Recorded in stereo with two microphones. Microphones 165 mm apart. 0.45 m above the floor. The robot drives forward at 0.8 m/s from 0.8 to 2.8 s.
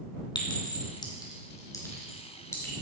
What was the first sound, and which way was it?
A clink, 25° left (ahead or behind).